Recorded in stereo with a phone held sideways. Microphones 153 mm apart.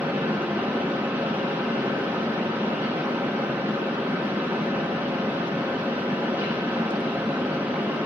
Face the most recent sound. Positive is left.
turn(degrees=-15)  # may be behind; listen again after turning